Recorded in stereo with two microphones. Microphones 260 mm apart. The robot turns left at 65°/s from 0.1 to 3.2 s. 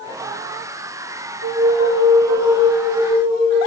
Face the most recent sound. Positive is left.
turn(degrees=150)